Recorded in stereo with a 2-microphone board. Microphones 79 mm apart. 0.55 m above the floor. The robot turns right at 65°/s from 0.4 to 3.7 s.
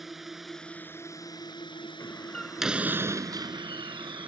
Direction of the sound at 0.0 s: 5° right (ahead or behind).